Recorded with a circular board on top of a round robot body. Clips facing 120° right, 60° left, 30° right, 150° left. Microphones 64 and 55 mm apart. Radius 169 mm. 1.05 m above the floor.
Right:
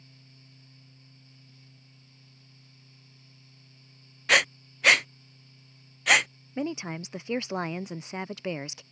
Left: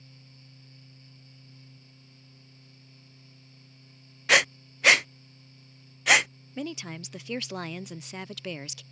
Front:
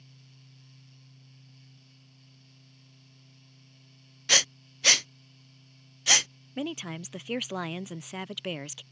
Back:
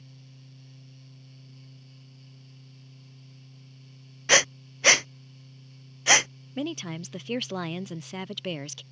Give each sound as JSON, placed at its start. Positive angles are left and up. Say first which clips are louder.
{"t": 4.3, "sound": "breathing", "louder": "left 1 dB, back 6 dB", "azimuth_deg": 150}
{"t": 6.6, "sound": "a woman speaking", "louder": "right 4 dB, back 2 dB", "azimuth_deg": -105}